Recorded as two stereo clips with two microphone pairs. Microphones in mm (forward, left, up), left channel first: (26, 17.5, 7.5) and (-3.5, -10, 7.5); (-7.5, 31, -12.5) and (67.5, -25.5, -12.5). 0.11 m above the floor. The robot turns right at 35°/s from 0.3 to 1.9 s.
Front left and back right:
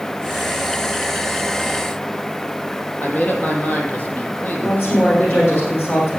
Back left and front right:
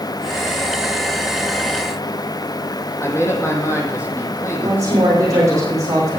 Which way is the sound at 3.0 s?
85° left.